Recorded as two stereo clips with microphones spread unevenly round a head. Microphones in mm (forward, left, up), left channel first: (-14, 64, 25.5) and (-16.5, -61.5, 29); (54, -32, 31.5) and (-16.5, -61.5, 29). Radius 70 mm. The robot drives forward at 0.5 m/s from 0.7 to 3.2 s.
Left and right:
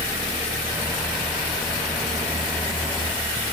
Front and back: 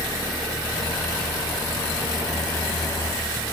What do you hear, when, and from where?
Only background noise.